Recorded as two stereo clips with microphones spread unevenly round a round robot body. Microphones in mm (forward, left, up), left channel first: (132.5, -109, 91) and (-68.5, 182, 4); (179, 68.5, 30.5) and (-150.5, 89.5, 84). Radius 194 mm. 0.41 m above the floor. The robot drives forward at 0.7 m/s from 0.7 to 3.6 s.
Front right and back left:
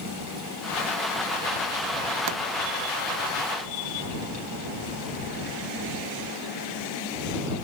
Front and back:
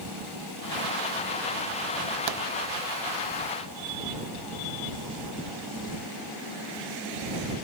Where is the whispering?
I don't hear whispering.